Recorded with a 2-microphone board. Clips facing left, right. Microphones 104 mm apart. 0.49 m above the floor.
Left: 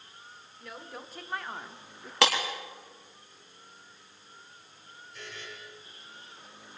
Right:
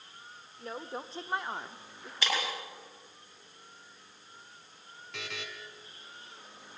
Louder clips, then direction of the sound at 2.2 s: Left 7 dB; 75° left (ahead or behind).